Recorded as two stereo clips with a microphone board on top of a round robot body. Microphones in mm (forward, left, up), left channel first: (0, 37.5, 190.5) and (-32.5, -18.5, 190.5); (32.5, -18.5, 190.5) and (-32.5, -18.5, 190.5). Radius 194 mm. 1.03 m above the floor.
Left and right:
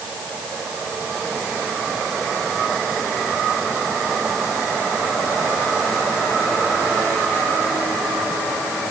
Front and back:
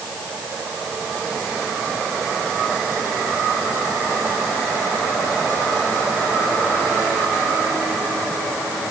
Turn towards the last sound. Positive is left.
No sound to turn to.